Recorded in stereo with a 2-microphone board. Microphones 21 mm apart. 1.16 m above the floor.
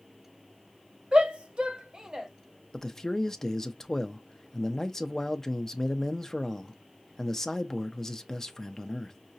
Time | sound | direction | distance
1.1 | a shout | 50° right (ahead or behind) | 0.8 m
2.7 | a man speaking | 20° left (ahead or behind) | 0.5 m